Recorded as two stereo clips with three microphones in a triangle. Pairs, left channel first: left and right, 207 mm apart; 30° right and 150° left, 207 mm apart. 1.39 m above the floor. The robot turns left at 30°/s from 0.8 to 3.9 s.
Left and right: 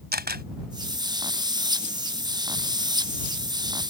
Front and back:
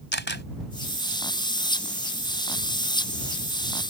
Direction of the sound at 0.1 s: 55° right.